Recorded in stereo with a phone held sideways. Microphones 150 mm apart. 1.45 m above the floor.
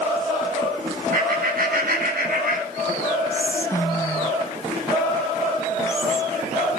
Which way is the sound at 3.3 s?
20° left (ahead or behind).